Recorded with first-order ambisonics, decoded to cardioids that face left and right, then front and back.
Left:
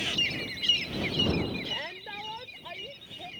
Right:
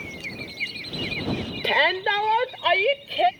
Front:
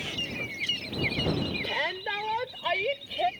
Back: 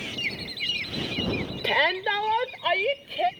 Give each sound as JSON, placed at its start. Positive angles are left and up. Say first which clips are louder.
{"t": 1.6, "sound": "a shout", "louder": "right 15 dB, back 11 dB", "azimuth_deg": -120}